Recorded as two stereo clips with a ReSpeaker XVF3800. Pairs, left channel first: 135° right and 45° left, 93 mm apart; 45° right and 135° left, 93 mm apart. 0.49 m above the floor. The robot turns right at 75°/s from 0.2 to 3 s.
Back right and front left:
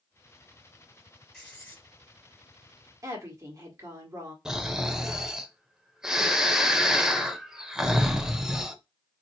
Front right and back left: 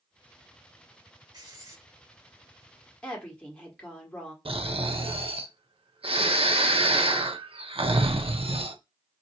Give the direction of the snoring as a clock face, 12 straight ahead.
8 o'clock.